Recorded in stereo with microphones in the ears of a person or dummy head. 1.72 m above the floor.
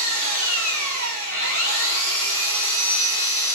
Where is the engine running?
65° right (ahead or behind), 4.5 m.